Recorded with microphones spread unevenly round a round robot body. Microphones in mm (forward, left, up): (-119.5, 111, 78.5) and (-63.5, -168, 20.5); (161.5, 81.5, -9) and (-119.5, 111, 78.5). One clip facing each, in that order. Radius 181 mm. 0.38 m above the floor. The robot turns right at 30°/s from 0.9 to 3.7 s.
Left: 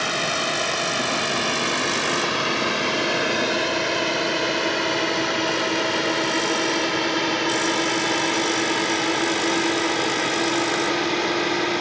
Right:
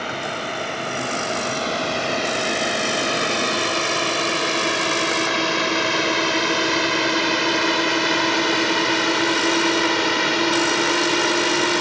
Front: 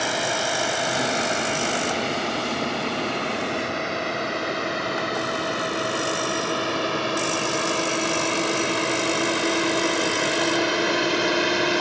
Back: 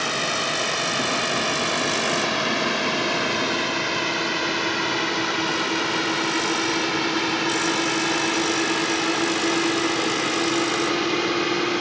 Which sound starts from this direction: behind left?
A drone, at 0.0 s.